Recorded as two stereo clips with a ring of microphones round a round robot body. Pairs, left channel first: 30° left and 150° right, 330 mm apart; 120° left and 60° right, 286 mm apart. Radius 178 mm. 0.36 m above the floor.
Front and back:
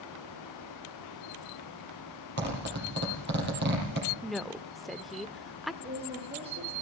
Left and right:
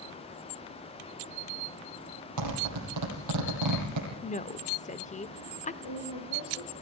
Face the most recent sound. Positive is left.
turn(degrees=135)